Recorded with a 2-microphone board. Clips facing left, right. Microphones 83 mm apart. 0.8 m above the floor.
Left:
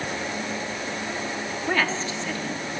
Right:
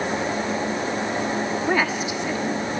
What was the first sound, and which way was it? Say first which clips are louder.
A woman speaking: even; 15° right (ahead or behind).